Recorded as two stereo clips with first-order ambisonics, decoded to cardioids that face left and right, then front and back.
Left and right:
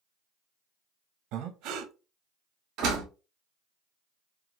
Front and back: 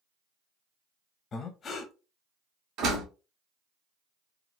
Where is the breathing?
60° right, 0.5 m.